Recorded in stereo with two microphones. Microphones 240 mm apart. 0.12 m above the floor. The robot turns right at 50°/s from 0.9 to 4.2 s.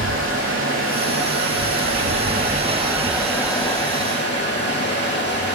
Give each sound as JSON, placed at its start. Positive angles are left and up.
{"t": 0.0, "sound": "running water", "azimuth_deg": -115, "distance_m": 0.8}